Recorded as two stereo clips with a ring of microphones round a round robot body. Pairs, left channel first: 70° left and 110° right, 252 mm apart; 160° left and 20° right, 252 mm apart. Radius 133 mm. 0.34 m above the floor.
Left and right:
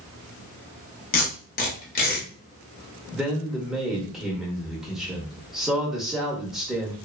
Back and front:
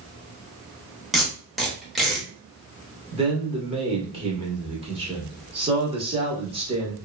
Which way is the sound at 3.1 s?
25° right.